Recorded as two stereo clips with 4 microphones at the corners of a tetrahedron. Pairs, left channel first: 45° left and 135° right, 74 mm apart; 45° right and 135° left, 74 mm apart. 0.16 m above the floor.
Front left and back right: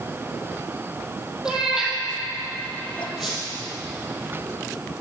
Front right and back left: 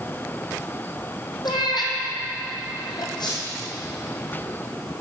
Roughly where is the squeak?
Ahead right.